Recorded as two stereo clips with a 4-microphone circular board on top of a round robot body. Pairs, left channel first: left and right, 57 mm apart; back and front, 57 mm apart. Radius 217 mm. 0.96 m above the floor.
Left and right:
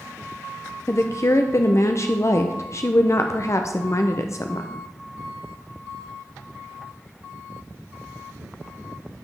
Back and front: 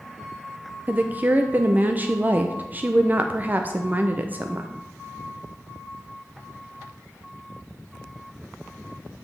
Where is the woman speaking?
55° left, 0.7 m.